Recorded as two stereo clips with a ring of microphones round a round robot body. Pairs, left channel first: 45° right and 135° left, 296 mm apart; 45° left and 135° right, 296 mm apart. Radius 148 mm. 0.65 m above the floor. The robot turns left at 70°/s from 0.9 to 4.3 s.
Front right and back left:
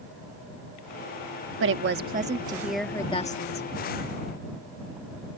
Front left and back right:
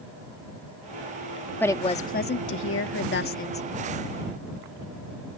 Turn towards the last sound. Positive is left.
turn(degrees=-60)